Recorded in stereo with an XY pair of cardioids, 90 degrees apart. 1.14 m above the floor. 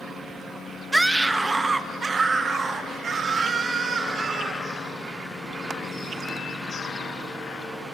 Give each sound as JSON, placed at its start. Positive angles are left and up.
{"t": 0.9, "sound": "a scream", "azimuth_deg": -15, "distance_m": 1.2}